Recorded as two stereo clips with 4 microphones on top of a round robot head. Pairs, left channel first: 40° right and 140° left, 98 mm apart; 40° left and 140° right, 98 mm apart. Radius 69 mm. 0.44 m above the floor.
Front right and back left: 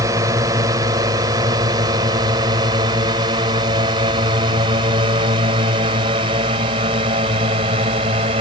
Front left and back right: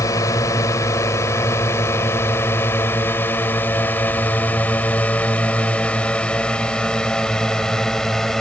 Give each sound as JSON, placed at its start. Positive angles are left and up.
{"t": 0.0, "sound": "a drone", "azimuth_deg": 90}